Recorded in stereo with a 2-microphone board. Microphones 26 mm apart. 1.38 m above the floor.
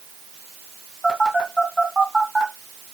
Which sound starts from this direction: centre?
A phone buzzing, at 1.0 s.